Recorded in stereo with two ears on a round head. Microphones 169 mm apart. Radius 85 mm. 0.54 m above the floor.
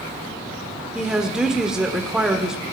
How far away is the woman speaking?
About 1.5 m.